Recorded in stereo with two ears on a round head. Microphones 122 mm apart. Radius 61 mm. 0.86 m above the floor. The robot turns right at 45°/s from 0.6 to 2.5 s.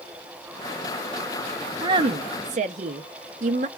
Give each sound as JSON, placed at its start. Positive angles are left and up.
{"t": 1.8, "sound": "a woman speaking", "azimuth_deg": -145, "distance_m": 0.6}